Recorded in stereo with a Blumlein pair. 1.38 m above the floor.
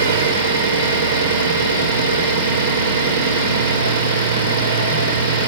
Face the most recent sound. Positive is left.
turn(degrees=-70)